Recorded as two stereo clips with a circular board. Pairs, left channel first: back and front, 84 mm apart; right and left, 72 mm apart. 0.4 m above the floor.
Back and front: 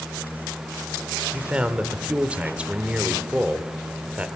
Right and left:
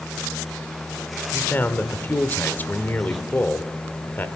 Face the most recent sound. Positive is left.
turn(degrees=-60)